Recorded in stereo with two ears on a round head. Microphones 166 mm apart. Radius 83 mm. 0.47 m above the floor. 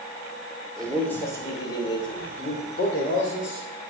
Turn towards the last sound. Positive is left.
turn(degrees=50)  # may be behind; listen again after turning